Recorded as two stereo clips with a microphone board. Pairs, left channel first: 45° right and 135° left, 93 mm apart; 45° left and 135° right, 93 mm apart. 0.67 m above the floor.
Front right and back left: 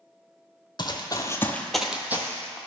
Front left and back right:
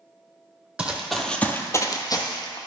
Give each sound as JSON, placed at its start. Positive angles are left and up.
{"t": 0.8, "sound": "running footsteps", "azimuth_deg": -60, "distance_m": 1.0}